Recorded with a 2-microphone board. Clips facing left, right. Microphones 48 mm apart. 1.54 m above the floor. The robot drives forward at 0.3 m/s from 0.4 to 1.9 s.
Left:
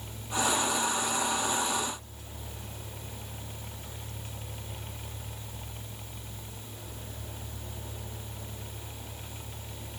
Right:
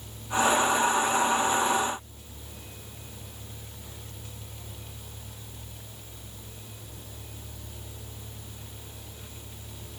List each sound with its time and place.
Only background noise.